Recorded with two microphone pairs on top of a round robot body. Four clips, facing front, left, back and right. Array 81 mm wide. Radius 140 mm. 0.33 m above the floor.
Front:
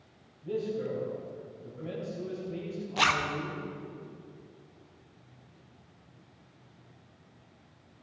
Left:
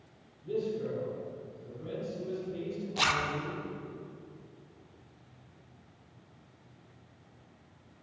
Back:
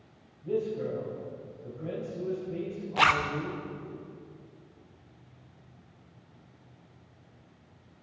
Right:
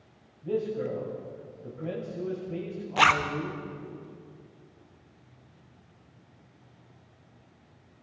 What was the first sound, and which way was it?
A man speaking, 95° right.